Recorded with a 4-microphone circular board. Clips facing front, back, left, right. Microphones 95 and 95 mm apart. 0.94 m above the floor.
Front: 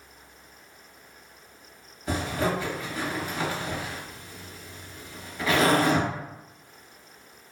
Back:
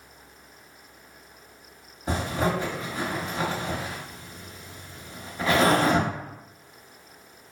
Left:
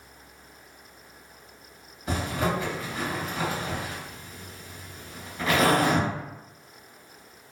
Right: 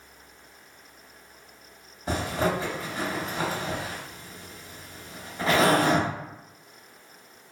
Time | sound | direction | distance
2.1 | a zipper | 125° right | 0.9 m